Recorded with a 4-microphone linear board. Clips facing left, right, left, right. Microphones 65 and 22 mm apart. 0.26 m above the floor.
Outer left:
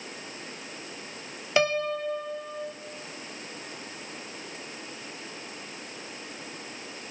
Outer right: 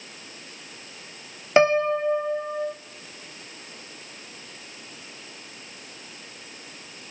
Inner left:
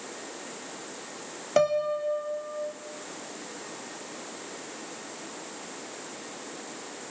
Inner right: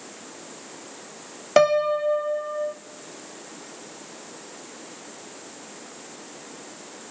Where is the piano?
30° right (ahead or behind), 0.8 m.